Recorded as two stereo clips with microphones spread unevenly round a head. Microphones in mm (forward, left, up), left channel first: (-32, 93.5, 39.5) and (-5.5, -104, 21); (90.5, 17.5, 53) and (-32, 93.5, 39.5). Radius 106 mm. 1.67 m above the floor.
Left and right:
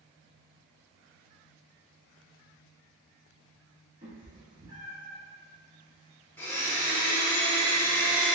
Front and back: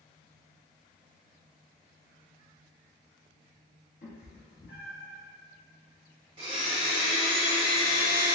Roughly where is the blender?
Behind left.